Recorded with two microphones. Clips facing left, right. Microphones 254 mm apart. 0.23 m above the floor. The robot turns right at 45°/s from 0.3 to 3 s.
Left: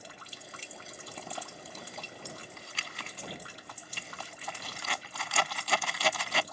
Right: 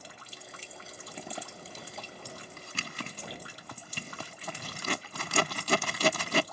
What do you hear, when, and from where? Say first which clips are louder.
1.2 s a zipper: right 3 dB; 15° right (ahead or behind); by 6.4 s 50° right (ahead or behind)